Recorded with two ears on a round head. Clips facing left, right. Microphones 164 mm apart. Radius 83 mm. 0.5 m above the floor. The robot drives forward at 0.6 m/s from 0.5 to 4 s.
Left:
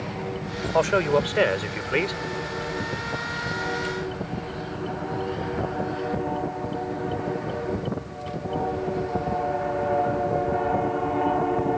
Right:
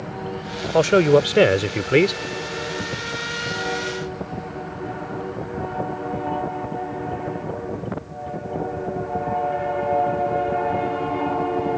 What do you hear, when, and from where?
0.7 s a man speaking: 45° right (ahead or behind); by 2.2 s 55° right (ahead or behind)